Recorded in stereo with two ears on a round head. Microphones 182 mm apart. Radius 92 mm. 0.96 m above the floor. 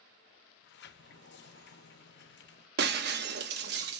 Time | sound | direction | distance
0.6 | a sliding door | 55° left (ahead or behind) | 0.6 m
2.8 | breaking glass | 50° right (ahead or behind) | 0.9 m